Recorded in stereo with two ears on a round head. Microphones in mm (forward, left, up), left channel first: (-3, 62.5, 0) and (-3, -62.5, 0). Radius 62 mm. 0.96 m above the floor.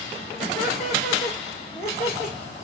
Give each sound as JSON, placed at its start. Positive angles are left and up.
{"t": 0.4, "sound": "laughter", "side_deg": 45, "distance_m": 3.5}